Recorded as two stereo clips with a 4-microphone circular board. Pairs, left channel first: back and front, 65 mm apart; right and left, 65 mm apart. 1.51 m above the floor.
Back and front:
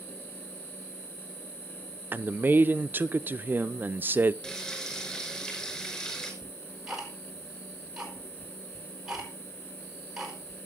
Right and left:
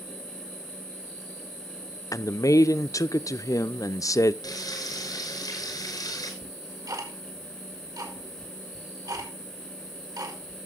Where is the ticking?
80° left, 4 m.